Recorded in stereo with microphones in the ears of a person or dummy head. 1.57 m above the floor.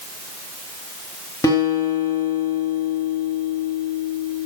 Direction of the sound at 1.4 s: 15° left (ahead or behind).